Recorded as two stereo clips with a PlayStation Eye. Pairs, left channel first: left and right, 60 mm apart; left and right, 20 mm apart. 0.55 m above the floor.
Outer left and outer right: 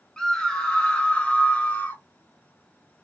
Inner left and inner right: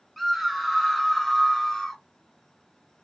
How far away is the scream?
About 2 m.